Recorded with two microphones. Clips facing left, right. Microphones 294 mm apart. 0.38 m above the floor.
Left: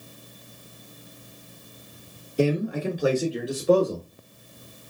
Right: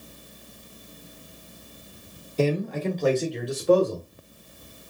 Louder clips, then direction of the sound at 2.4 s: Left 1 dB; 15° left (ahead or behind).